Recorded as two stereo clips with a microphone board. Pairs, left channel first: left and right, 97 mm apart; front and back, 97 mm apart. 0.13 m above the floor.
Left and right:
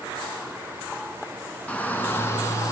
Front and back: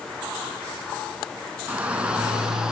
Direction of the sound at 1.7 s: 135° left.